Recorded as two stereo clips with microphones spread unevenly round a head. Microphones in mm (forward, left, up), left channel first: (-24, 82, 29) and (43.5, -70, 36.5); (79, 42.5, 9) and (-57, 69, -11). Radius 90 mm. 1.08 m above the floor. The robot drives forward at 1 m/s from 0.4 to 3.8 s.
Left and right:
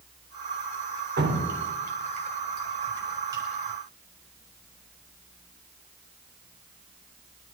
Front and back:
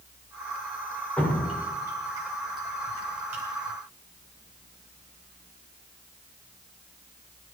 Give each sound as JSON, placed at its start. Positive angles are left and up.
{"t": 1.2, "sound": "dripping", "azimuth_deg": -95, "distance_m": 2.5}